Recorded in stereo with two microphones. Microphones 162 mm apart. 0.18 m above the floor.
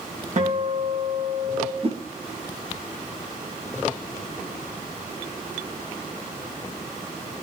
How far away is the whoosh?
About 4 m.